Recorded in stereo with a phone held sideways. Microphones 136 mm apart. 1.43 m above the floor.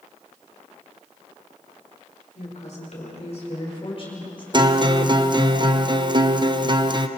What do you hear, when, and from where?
2.4 s a woman speaking: 60° left (ahead or behind), 5 m; by 4.4 s 40° left (ahead or behind), 6 m
4.5 s a guitar: 35° right (ahead or behind), 0.8 m